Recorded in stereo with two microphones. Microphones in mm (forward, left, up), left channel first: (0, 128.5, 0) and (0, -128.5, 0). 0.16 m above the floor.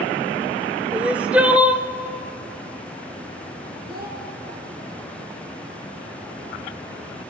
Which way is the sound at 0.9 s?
5° right (ahead or behind).